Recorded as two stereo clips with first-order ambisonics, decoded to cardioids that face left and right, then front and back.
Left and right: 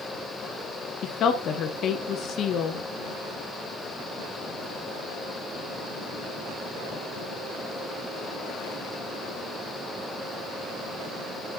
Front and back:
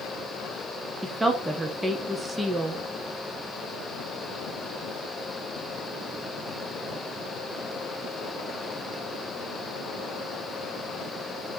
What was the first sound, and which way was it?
A woman speaking, 105° left.